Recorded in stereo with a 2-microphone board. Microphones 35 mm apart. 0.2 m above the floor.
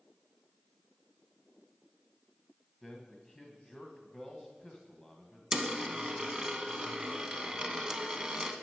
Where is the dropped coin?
20° right (ahead or behind), 0.7 m.